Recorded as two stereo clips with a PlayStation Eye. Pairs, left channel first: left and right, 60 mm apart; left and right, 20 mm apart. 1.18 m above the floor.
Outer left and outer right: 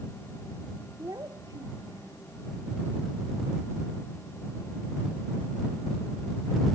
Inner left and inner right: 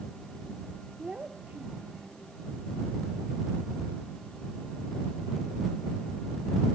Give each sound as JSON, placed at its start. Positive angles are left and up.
{"t": 1.0, "sound": "a child speaking", "side_deg": -80}